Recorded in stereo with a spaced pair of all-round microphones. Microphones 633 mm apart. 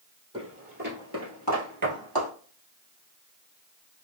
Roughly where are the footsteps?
Centre.